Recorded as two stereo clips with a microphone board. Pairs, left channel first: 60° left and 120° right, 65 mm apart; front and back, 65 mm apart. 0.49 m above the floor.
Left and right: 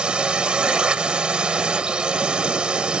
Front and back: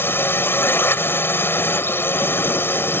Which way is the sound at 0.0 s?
45° right.